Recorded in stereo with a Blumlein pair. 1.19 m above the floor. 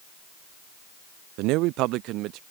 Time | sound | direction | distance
1.4 | a man speaking | 40° right | ?